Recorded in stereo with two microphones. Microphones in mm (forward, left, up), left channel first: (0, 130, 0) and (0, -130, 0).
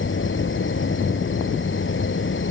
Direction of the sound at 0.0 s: 50° left (ahead or behind).